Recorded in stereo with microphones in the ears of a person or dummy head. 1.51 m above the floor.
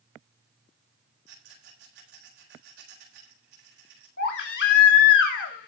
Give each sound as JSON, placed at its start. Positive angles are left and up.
{"t": 1.3, "sound": "a rattle", "side_deg": -65, "distance_m": 9.0}
{"t": 4.2, "sound": "a baby crying", "side_deg": 60, "distance_m": 2.5}